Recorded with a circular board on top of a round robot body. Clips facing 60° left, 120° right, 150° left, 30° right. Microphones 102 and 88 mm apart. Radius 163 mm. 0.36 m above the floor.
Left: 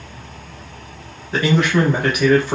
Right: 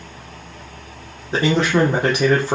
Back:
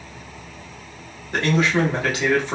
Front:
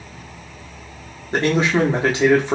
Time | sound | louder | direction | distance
1.3 | a man speaking | even, front 2 dB | 75° right | 1.3 m